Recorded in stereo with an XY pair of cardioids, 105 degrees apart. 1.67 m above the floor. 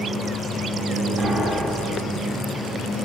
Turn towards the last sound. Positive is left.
turn(degrees=-45)